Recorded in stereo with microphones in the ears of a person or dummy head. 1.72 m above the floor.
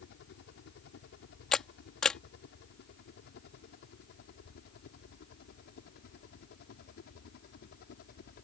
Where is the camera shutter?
5° left (ahead or behind).